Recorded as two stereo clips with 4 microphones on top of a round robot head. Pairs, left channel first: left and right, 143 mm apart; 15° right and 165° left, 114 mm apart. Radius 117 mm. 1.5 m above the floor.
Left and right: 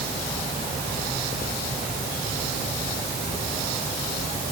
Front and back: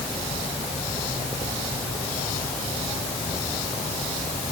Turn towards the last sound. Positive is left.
No sound to turn to.